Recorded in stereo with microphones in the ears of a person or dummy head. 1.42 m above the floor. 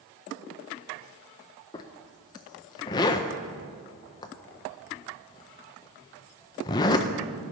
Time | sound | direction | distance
1.7 | a zipper | 25° left (ahead or behind) | 0.5 m